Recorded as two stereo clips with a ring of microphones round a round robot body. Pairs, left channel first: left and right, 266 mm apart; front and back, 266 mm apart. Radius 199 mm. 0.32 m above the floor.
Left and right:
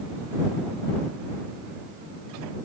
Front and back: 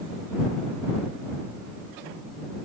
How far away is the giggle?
I don't hear a giggle.